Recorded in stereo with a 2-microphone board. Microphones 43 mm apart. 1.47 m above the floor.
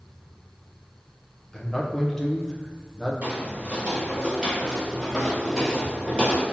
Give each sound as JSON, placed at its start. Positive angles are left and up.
{"t": 1.5, "sound": "a man speaking", "side_deg": 15, "distance_m": 0.6}
{"t": 3.2, "sound": "footsteps", "side_deg": -35, "distance_m": 1.9}